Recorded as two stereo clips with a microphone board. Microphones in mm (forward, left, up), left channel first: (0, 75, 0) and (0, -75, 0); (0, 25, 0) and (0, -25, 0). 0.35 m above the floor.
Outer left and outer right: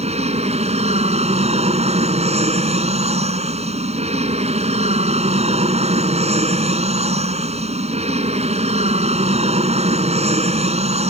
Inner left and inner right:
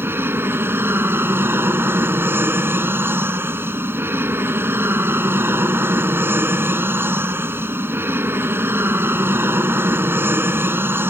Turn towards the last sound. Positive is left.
turn(degrees=-45)  # may be behind; listen again after turning